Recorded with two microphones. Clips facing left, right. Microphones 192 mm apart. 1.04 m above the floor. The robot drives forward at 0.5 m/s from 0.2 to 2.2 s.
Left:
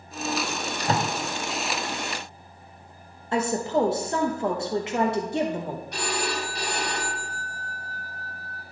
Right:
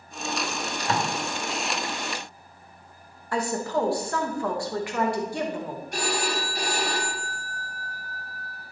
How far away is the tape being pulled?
About 1.3 m.